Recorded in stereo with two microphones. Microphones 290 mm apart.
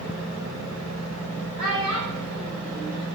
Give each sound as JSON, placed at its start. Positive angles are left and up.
{"t": 1.6, "sound": "a child speaking", "side_deg": -55, "distance_m": 2.5}